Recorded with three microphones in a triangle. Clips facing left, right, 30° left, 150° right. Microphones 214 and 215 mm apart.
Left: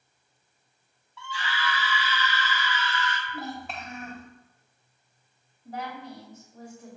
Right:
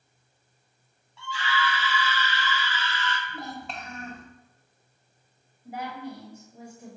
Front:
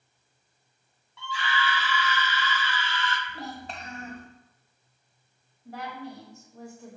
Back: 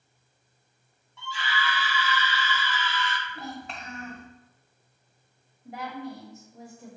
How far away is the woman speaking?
About 1.1 m.